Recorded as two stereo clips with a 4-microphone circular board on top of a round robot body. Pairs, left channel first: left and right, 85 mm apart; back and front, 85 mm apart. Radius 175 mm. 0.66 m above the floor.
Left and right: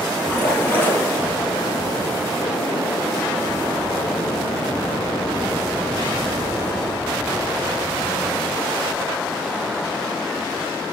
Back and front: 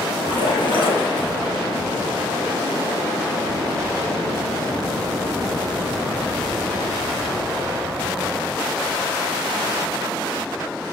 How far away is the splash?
About 4 m.